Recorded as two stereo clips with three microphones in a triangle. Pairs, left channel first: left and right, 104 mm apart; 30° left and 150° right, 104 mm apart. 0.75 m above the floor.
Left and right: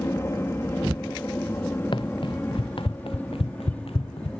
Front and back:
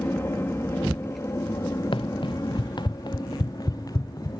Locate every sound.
0.0 s an aircraft: 65° left; by 4.4 s 15° left
1.9 s running footsteps: 60° left; by 4.3 s 85° left